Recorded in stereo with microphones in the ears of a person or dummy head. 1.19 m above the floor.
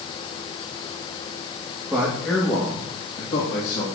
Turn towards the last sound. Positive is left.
turn(degrees=55)  # may be behind; listen again after turning